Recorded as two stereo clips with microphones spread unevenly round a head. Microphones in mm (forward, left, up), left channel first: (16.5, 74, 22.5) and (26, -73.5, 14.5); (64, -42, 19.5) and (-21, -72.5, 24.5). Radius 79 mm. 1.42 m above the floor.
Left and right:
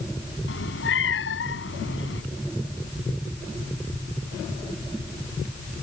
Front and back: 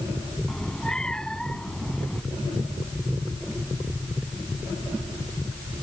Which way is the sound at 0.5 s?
105° left.